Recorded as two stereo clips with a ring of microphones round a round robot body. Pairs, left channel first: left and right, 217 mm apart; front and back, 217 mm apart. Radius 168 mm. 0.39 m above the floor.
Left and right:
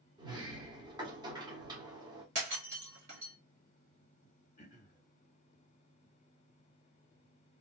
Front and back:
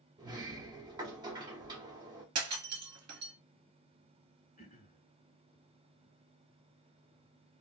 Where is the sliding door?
135° right, 1.1 m.